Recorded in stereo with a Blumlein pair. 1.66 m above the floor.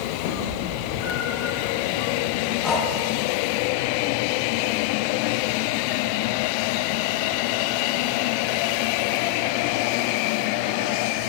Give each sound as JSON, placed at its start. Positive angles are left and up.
{"t": 0.2, "sound": "a cat meowing", "azimuth_deg": 50, "distance_m": 3.0}
{"t": 2.6, "sound": "breathing", "azimuth_deg": 10, "distance_m": 3.0}